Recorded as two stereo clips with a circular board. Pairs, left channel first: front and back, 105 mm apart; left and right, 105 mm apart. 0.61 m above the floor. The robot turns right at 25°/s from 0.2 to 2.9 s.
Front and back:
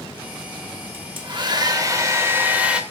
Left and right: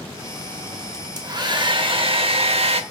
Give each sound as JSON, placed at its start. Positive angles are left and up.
{"t": 0.9, "sound": "a hair dryer", "azimuth_deg": -145, "distance_m": 0.6}